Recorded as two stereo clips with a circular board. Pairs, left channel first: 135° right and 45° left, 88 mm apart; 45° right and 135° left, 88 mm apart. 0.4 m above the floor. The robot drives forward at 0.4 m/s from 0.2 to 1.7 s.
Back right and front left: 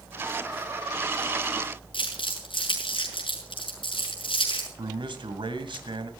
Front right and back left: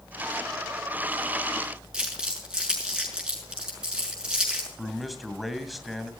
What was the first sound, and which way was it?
Crumpling, 145° right.